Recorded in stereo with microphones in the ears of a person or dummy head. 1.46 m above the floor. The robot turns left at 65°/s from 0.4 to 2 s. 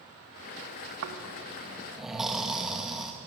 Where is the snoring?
110° right, 2.5 m; by 3.1 s 175° right, 2.5 m.